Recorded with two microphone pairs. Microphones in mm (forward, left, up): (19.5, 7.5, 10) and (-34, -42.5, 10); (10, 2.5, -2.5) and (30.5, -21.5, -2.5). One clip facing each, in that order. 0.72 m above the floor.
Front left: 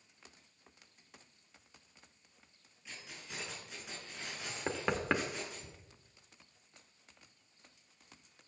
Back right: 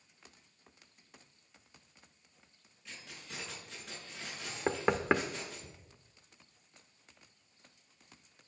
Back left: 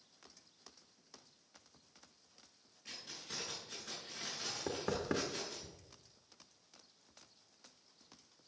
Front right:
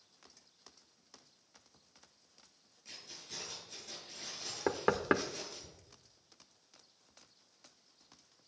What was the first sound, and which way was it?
Keys jangling, 130° left.